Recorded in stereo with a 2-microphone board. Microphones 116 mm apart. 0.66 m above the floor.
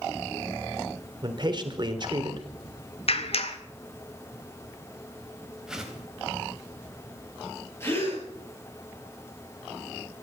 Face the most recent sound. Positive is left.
turn(degrees=20)  # may be behind; listen again after turning